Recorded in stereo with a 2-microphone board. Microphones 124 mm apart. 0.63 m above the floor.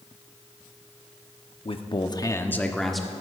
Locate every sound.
1.6 s a man speaking: 50° left (ahead or behind), 0.9 m; by 3.1 s 5° right (ahead or behind), 1.3 m